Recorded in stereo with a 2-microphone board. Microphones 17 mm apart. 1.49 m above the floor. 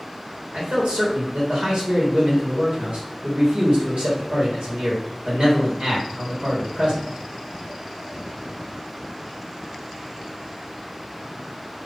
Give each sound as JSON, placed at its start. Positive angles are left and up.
{"t": 0.5, "sound": "a man speaking", "side_deg": -65, "distance_m": 1.5}